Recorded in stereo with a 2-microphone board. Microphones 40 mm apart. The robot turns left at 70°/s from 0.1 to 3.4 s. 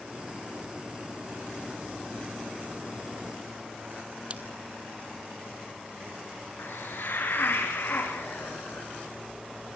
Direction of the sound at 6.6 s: 55° left (ahead or behind).